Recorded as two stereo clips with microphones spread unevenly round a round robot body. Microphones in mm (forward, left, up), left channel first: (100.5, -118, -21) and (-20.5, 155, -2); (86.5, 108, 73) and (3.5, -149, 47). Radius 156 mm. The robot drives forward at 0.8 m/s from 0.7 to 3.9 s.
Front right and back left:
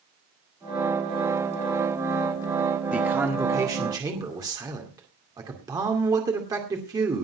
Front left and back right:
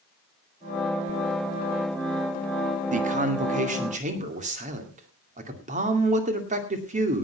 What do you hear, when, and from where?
2.9 s a man speaking: 160° right, 1.5 m; by 7.3 s 165° right, 2 m